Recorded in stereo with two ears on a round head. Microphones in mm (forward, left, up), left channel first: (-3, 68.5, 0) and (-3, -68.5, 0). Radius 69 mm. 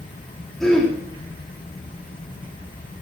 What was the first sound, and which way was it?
Throat clearing, 5° left (ahead or behind).